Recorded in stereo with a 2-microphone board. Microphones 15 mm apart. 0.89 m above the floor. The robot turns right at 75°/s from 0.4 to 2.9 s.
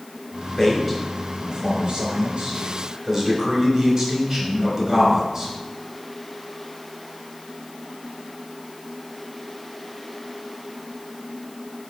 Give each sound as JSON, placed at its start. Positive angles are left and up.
{"t": 0.6, "sound": "a man speaking", "azimuth_deg": 150, "distance_m": 3.0}